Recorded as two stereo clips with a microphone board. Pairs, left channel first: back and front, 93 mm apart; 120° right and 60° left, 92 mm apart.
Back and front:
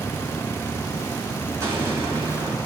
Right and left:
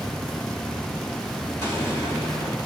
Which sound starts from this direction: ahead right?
An explosion, at 1.6 s.